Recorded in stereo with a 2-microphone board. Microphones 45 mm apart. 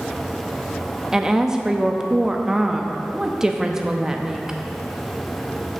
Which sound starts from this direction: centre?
A woman speaking, at 1.1 s.